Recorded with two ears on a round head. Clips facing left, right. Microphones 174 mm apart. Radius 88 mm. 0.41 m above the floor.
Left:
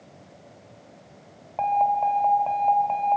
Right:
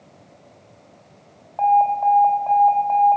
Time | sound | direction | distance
1.6 | an alarm | 40° left (ahead or behind) | 3 m